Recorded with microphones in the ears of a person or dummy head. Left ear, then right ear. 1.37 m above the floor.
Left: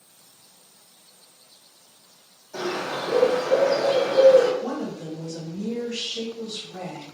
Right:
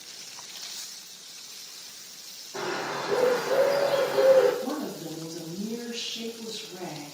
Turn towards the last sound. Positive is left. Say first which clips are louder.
# left 2 dB
turn(degrees=45)  # may be behind; listen again after turning